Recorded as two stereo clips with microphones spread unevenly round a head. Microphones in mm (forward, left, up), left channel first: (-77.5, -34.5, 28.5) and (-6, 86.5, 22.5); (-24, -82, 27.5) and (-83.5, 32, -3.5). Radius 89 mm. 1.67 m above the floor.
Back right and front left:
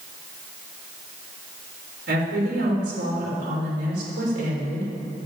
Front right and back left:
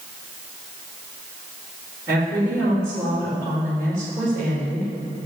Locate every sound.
2.1 s a woman speaking: 40° left, 3.5 m